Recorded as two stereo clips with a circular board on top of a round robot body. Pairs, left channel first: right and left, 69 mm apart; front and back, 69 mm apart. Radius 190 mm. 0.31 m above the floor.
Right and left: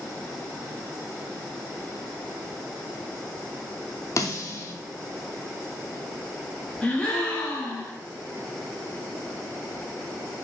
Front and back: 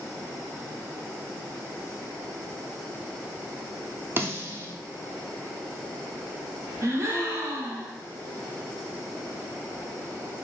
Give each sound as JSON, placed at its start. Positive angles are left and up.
{"t": 4.2, "sound": "a snare drum", "azimuth_deg": -125, "distance_m": 1.1}
{"t": 6.8, "sound": "a gasp", "azimuth_deg": -160, "distance_m": 1.5}